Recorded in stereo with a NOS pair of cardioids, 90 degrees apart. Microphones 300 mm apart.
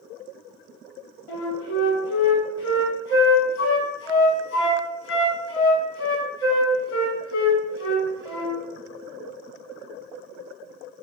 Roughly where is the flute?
Ahead left.